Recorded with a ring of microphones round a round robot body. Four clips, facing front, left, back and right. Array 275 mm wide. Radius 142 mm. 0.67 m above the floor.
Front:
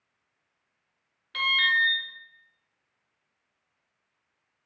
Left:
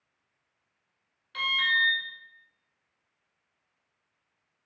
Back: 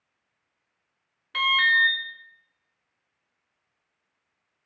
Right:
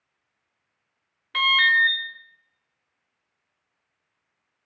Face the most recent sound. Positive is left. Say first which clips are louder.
# right 8 dB, back 4 dB
turn(degrees=-105)